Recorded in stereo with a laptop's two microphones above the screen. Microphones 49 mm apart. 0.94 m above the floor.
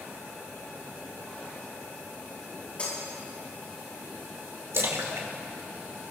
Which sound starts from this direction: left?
Breaking glass, at 2.8 s.